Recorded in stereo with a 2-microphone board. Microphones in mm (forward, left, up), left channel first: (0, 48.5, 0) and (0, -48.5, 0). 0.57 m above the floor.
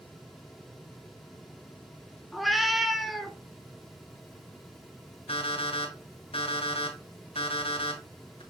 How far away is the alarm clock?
About 2.5 m.